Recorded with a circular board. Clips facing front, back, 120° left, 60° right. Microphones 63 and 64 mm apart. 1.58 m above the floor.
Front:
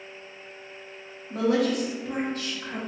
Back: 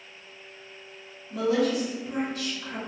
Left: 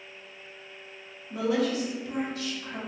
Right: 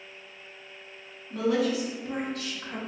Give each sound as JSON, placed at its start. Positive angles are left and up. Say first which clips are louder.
{"t": 1.3, "sound": "a woman speaking", "louder": "front 1 dB, right 1 dB", "azimuth_deg": 45, "distance_m": 0.9}